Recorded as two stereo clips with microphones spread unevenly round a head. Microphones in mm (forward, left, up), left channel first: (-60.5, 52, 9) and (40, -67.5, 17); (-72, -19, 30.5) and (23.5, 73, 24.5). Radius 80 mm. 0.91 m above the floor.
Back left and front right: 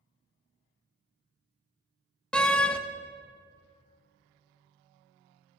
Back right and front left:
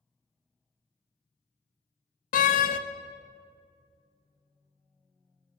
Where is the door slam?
145° right, 0.6 m.